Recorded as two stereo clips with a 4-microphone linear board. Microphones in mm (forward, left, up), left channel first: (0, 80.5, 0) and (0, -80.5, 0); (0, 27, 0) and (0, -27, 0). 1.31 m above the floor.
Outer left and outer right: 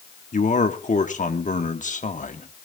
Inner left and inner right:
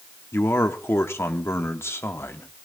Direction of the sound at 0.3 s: 50° left (ahead or behind).